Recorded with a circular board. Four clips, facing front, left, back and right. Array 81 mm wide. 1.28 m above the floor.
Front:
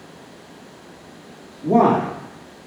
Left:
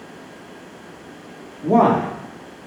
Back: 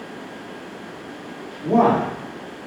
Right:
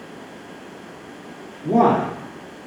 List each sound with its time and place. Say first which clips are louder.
1.6 s a man speaking: left 1 dB, front 1 dB; 90° left, 1.1 m